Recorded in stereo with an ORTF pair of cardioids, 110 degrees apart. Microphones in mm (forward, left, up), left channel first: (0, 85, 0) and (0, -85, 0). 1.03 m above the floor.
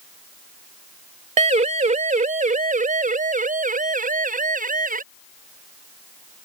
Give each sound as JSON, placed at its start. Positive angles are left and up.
{"t": 1.4, "sound": "a siren", "azimuth_deg": -40}